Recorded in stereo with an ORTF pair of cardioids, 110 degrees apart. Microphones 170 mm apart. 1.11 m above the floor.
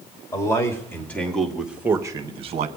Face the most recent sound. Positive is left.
turn(degrees=-45)